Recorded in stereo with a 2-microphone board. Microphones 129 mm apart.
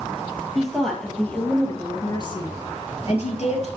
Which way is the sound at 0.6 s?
Centre (ahead or behind).